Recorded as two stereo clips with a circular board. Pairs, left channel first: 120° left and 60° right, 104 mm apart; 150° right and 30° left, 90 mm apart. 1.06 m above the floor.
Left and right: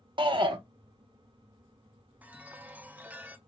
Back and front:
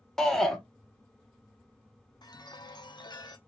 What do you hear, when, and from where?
0.2 s a shout: 65° right, 1.0 m
2.2 s a chime: 130° right, 0.7 m